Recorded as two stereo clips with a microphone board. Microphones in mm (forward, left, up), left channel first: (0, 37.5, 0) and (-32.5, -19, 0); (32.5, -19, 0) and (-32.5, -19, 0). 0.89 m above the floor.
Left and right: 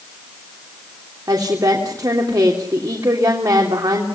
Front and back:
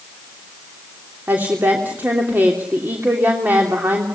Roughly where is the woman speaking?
Behind right.